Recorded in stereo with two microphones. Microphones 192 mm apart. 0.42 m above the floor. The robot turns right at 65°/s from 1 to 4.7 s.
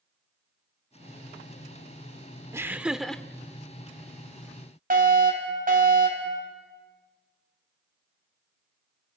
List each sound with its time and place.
2.5 s laughter: 15° right (ahead or behind), 0.8 m; by 3.2 s 5° left (ahead or behind), 0.8 m
4.9 s a fire alarm: 45° right (ahead or behind), 4.5 m